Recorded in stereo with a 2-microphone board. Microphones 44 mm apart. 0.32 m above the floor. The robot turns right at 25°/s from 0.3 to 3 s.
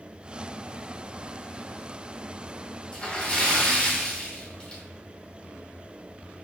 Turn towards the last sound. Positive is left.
turn(degrees=25)  # may be behind; listen again after turning